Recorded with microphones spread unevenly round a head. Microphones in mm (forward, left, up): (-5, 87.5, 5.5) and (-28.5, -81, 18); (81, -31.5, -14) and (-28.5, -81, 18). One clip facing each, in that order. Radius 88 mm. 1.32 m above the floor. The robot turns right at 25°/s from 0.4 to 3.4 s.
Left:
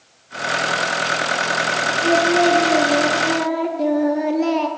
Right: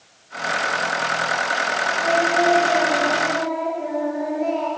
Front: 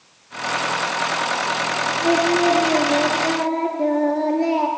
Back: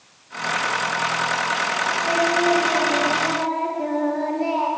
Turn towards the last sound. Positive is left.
turn(degrees=85)